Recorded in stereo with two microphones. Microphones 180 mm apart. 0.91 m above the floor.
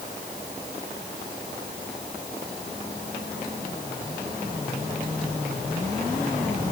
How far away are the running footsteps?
I don't hear running footsteps.